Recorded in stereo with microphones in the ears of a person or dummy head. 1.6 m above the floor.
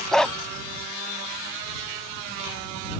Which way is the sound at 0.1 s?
5° left (ahead or behind).